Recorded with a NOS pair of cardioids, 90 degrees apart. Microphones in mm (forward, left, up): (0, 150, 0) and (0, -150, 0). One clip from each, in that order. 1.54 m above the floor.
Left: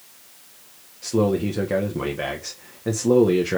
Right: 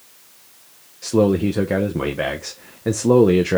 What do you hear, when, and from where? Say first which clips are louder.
1.0 s a man speaking: right 4 dB; 25° right, 1.1 m